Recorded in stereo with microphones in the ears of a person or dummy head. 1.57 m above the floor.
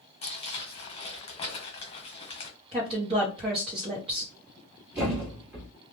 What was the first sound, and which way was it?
Crumpling, 30° left (ahead or behind).